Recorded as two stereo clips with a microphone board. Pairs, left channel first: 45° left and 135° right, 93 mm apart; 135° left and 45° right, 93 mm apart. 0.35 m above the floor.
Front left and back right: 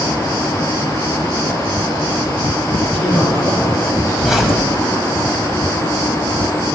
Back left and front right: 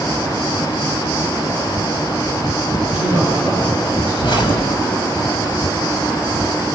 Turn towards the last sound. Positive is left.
turn(degrees=140)